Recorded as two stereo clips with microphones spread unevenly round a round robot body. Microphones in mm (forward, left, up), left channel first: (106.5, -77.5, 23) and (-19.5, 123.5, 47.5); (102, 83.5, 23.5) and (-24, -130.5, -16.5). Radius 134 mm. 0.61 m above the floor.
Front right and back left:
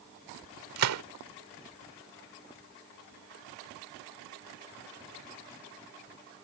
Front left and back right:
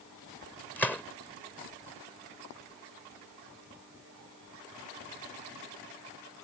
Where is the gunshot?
145° left.